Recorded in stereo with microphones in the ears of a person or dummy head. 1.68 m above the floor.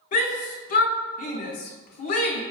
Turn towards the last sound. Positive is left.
turn(degrees=50)  # may be behind; listen again after turning